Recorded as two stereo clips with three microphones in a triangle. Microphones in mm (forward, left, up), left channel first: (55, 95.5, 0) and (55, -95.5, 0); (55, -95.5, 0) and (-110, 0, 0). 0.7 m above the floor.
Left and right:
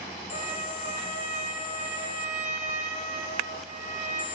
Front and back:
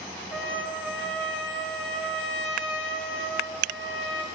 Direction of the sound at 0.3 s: 145° left.